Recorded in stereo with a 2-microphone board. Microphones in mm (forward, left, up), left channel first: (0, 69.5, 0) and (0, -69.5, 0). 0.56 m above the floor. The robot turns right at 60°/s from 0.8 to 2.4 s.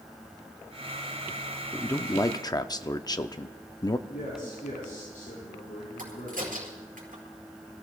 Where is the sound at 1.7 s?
20° left, 0.6 m; by 4.0 s 65° left, 0.6 m.